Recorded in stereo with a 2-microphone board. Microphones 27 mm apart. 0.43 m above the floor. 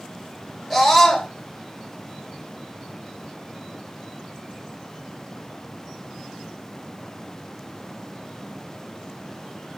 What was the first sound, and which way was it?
A scream, 5° left (ahead or behind).